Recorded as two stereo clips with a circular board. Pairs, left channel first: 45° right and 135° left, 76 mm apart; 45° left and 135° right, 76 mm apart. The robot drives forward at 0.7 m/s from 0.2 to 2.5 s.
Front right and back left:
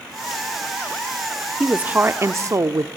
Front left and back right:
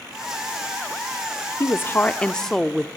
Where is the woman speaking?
60° left, 0.9 m; by 2.9 s 125° left, 0.9 m.